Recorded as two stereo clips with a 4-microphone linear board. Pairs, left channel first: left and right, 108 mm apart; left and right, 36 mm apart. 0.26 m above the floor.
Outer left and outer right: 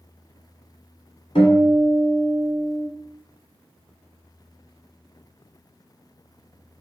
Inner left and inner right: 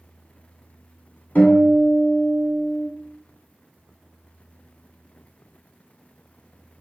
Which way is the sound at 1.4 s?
60° left (ahead or behind).